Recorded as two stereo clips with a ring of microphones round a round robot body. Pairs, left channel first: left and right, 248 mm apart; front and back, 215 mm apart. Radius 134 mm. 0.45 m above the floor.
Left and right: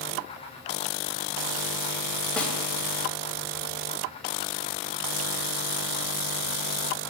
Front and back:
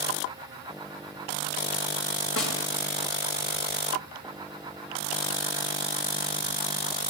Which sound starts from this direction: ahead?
A snare drum, at 2.4 s.